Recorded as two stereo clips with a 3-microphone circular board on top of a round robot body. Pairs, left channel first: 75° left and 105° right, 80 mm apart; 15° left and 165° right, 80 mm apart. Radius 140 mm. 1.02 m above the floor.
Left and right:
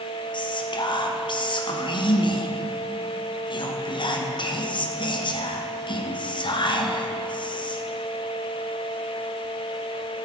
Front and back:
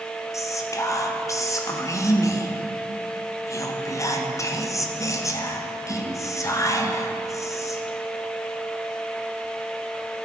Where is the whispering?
65° left, 1.3 m.